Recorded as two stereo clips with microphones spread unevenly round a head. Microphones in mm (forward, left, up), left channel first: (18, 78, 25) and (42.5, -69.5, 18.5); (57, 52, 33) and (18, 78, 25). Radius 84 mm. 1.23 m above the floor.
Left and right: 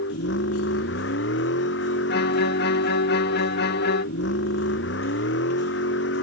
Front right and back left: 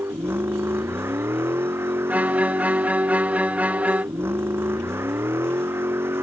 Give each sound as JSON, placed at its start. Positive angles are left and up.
{"t": 0.0, "sound": "a vehicle", "azimuth_deg": 115}
{"t": 2.1, "sound": "a violin", "azimuth_deg": 90}